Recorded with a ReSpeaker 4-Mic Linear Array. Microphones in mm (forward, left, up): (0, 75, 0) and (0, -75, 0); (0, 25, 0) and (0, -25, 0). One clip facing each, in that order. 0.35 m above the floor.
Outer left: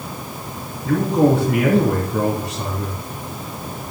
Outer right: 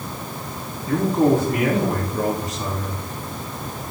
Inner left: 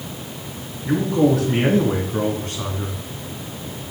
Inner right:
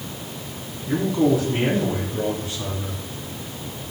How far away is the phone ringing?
I don't hear a phone ringing.